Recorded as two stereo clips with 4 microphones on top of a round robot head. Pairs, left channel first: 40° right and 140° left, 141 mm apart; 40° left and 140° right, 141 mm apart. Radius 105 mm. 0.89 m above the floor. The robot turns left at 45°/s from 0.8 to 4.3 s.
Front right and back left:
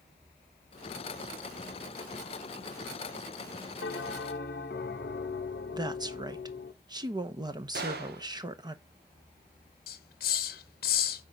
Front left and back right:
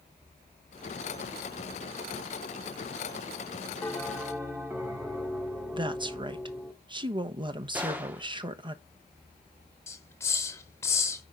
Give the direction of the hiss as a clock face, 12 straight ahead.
1 o'clock.